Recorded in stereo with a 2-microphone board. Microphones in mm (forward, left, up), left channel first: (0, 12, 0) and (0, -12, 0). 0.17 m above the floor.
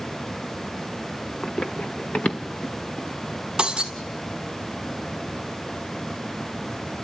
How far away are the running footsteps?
About 1.0 m.